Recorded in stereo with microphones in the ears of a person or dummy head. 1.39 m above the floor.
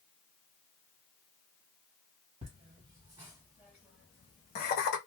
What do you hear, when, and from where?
2.4 s laughter: 35° right (ahead or behind), 1.3 m; by 5.0 s 55° left (ahead or behind), 0.8 m